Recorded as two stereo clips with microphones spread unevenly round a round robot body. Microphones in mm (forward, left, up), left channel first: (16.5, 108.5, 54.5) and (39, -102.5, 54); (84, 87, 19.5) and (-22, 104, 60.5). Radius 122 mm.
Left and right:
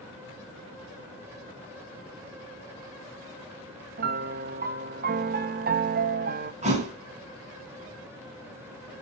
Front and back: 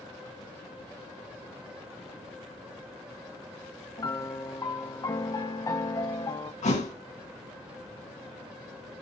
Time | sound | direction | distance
4.0 | a piano | 50° right | 0.9 m
6.6 | a thud | 25° right | 3 m